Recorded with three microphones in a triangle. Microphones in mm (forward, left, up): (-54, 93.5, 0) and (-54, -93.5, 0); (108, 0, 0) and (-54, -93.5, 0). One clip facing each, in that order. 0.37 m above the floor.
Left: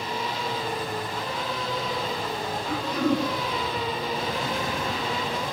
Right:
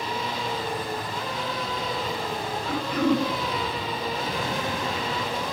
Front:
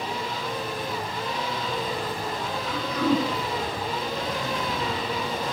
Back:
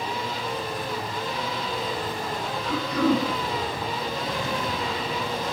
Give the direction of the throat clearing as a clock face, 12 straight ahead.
4 o'clock.